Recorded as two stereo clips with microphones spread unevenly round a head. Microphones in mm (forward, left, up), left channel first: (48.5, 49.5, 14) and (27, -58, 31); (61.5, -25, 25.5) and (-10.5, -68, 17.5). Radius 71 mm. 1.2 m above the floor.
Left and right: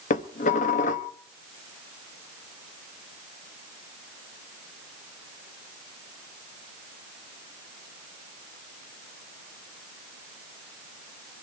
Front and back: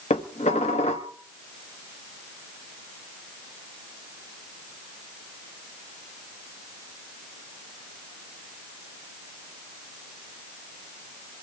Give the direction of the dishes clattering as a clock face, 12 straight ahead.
10 o'clock.